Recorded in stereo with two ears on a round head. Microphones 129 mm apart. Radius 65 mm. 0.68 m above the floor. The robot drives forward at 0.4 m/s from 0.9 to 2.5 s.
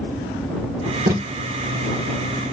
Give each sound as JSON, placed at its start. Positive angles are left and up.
{"t": 1.1, "sound": "tape being pulled", "side_deg": -70, "distance_m": 3.5}